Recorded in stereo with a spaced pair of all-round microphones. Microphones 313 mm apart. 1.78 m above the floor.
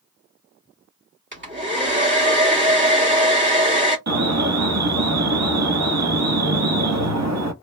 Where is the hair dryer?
35° right (ahead or behind), 1.6 m.